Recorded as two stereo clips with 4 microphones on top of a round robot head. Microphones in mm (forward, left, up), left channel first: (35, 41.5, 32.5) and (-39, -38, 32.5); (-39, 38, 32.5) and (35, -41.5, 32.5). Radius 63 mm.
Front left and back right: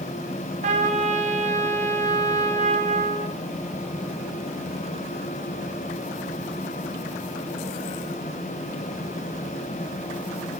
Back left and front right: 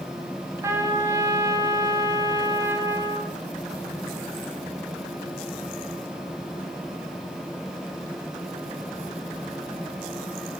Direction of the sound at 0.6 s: 110° right.